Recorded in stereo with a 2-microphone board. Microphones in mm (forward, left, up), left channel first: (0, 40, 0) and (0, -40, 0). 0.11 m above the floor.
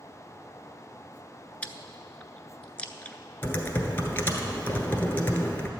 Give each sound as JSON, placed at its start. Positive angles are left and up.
{"t": 1.6, "sound": "chewing", "side_deg": 15, "distance_m": 0.6}
{"t": 3.4, "sound": "typing on a keyboard", "side_deg": 25, "distance_m": 1.2}